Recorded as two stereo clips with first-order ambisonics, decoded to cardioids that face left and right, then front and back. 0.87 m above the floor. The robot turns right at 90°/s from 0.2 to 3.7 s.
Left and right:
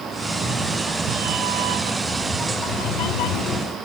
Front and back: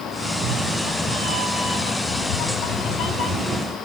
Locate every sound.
0.2 s a cat meowing: straight behind, 2.5 m; by 3.8 s 135° left, 2.5 m